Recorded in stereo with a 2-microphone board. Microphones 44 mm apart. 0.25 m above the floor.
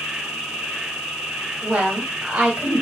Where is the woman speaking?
30° right (ahead or behind), 1.0 m.